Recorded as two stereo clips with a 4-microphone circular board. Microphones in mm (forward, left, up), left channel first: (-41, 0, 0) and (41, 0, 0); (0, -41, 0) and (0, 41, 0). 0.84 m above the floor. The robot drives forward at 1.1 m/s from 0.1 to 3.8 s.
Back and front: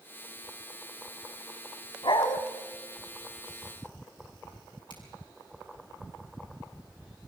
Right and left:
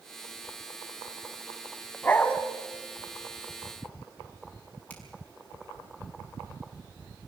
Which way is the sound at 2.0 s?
160° right.